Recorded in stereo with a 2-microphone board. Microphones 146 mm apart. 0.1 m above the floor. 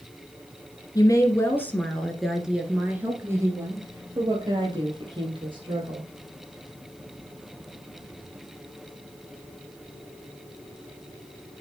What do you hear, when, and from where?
0.9 s a woman speaking: 25° left (ahead or behind), 1.5 m; by 6.1 s 40° right (ahead or behind), 3 m